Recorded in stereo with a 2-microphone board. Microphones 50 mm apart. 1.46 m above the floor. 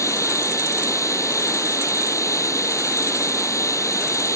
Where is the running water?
85° left.